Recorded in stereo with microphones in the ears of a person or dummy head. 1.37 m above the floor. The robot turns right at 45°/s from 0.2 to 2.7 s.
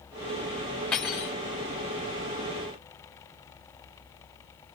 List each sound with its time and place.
0.9 s cutlery clinking: 10° left (ahead or behind), 2 m; by 1.4 s 10° right (ahead or behind), 2 m